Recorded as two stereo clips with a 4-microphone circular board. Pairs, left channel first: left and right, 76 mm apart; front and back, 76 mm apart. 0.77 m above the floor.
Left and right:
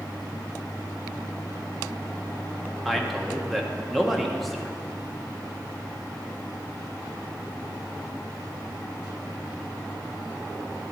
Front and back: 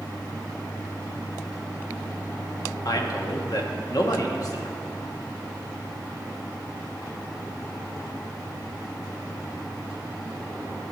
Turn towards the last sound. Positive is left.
turn(degrees=0)